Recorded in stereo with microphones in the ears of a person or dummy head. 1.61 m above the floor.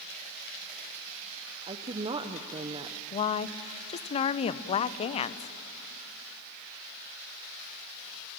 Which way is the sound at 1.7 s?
25° right (ahead or behind).